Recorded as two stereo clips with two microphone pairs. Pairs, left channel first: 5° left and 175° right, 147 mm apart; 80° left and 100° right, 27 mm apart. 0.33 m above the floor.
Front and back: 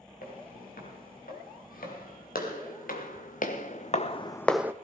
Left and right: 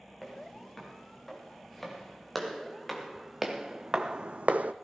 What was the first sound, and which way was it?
Footsteps, straight ahead.